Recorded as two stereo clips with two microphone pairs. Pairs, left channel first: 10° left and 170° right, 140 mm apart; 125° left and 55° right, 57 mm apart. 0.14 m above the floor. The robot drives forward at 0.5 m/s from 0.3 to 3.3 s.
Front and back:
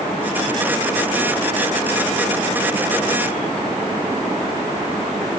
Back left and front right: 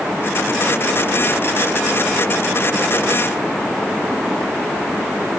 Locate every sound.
Only background noise.